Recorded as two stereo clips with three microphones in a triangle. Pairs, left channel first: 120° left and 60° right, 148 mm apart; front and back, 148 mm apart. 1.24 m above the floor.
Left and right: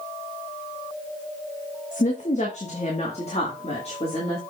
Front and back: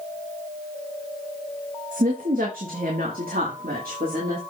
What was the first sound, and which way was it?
A woman speaking, 155° left.